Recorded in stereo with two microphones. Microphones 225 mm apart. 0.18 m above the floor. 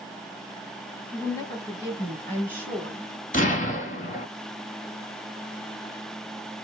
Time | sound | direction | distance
1.1 | a woman speaking | 15° left (ahead or behind) | 1.5 m
3.3 | an explosion | 35° left (ahead or behind) | 1.0 m